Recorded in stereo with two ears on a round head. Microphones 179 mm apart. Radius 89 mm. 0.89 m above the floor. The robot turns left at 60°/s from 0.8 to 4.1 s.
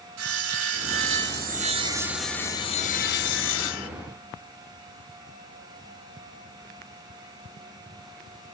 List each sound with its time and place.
0.2 s sawing: 95° right, 0.8 m; by 3.9 s 80° left, 0.8 m